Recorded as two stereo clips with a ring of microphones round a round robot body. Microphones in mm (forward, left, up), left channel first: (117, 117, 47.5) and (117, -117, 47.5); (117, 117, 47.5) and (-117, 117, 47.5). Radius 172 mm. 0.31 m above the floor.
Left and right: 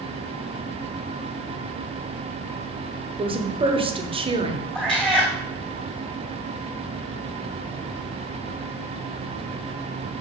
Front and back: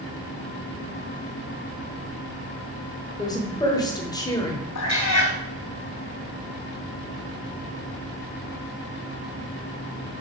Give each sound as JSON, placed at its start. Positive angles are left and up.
{"t": 3.2, "sound": "a woman speaking", "azimuth_deg": -55, "distance_m": 1.2}
{"t": 4.8, "sound": "a cat meowing", "azimuth_deg": 5, "distance_m": 3.5}